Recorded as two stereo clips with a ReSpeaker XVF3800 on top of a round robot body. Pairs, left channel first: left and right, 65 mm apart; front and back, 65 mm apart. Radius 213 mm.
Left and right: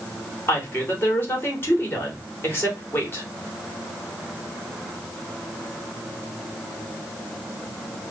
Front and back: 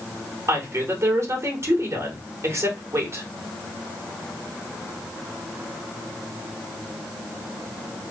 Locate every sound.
0.5 s a woman speaking: 140° left, 2 m